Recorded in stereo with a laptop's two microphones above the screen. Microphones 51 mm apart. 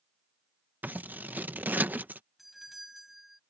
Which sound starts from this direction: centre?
A doorbell, at 2.4 s.